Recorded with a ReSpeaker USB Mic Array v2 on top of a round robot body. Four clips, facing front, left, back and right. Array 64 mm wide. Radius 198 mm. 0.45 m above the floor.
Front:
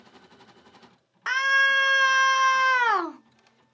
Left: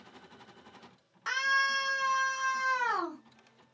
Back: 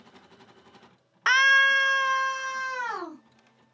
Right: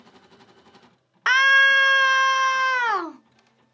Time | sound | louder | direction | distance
1.3 | a scream | right 13 dB, back 2 dB | 115° right | 1.3 m